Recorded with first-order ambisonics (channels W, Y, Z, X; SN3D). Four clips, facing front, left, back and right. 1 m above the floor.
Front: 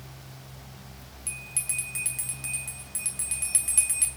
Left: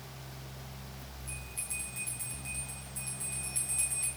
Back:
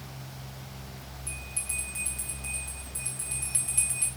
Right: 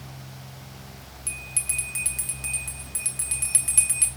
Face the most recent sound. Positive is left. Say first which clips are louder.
# right 11 dB, front 3 dB
turn(degrees=-65)